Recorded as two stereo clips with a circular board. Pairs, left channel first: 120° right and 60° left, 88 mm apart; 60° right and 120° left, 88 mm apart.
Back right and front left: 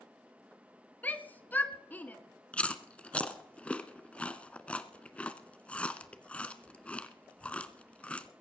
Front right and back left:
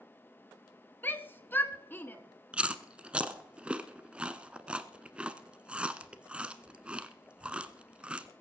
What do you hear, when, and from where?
1.0 s a shout: 85° right, 1.2 m
2.5 s chewing: straight behind, 0.8 m